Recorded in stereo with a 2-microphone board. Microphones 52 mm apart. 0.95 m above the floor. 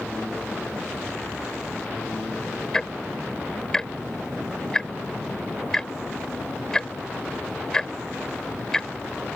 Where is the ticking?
10° left (ahead or behind).